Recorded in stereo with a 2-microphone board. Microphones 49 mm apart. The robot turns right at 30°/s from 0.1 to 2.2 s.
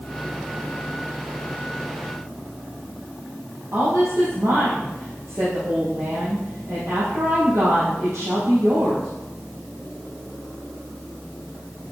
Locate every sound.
3.7 s a woman speaking: 60° right (ahead or behind), 4.5 m